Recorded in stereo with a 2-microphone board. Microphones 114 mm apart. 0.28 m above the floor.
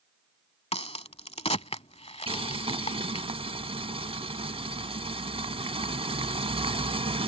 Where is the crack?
60° left (ahead or behind).